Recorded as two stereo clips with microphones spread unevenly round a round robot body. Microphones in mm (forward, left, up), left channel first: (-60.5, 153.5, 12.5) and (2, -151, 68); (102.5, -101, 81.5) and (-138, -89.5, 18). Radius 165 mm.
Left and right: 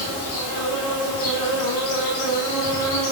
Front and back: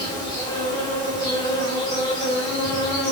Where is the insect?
80° left, 7.5 m.